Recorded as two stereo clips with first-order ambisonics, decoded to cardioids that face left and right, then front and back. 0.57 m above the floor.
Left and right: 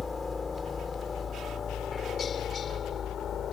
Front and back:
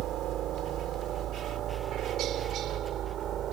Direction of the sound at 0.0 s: 160° left.